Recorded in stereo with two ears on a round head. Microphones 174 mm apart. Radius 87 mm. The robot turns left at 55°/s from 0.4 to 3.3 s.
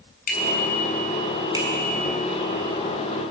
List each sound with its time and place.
0.3 s a bicycle bell: 45° left (ahead or behind), 7.5 m; by 2.1 s 50° right (ahead or behind), 7.5 m